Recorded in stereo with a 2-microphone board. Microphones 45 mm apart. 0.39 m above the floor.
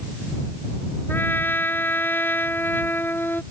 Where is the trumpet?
55° left (ahead or behind).